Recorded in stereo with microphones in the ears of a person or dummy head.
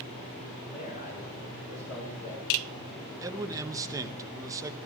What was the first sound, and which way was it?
A man speaking, 45° left (ahead or behind).